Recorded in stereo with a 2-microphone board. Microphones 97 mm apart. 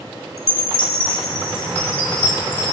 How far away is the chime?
About 1.3 m.